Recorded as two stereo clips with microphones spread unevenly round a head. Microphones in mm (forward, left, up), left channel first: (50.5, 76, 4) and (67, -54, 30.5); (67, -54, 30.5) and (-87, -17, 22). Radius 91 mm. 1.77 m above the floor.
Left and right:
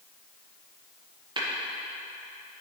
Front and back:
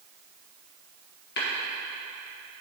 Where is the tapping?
30° right, 1.7 m.